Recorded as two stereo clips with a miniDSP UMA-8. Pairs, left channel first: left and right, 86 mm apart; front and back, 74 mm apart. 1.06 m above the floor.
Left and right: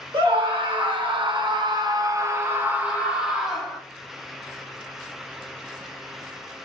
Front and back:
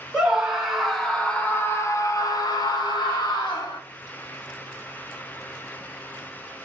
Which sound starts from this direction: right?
A scream, at 0.1 s.